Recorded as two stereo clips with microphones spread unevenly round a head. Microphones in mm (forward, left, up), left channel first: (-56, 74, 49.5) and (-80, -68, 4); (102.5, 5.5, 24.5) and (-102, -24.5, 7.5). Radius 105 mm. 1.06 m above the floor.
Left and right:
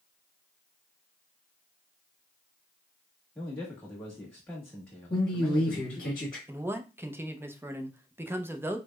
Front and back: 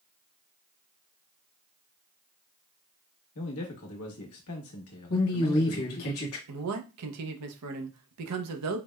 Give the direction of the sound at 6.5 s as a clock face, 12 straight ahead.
6 o'clock.